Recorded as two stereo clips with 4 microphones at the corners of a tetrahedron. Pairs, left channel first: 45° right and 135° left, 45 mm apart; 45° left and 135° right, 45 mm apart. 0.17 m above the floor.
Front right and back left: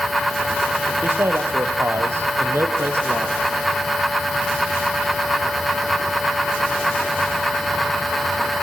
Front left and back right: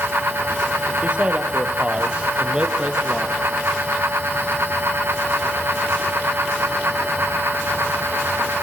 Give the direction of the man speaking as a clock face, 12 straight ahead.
6 o'clock.